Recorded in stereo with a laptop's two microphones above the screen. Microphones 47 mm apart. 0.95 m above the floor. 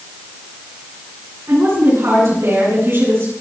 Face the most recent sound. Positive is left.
turn(degrees=-55)  # may be behind; listen again after turning